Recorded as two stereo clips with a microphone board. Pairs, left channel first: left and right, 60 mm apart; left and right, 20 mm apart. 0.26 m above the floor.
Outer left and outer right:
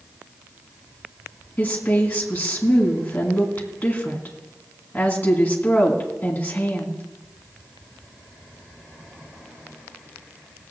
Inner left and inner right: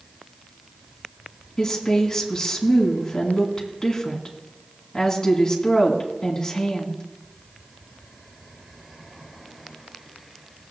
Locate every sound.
1.6 s a woman speaking: 25° left (ahead or behind), 2.5 m